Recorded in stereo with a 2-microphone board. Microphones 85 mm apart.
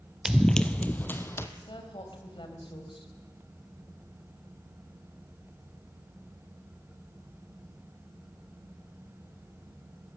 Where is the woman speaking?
70° left (ahead or behind), 3.5 m.